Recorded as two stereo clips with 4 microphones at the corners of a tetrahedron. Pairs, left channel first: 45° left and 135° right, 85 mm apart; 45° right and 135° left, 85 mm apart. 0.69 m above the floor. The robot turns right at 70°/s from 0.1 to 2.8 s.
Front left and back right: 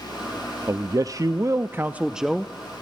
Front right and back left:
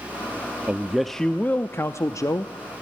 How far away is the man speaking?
About 0.6 m.